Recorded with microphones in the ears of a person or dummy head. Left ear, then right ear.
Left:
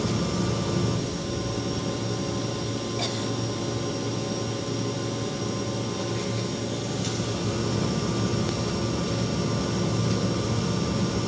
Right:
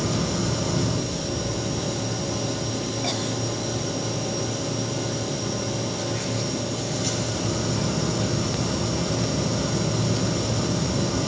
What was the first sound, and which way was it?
A machine running, 5° right (ahead or behind).